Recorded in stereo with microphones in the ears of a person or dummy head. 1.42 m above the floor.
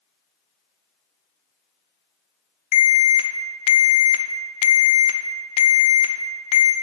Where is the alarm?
35° left (ahead or behind), 0.8 m.